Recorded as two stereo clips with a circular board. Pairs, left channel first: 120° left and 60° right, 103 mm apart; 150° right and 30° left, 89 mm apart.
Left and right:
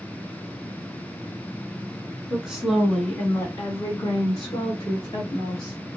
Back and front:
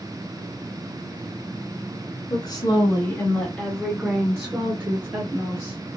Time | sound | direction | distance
2.3 | a woman speaking | 140° right | 1.7 m